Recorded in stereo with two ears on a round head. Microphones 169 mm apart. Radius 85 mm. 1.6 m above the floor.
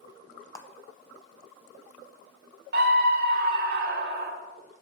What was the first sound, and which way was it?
A clap, 15° left (ahead or behind).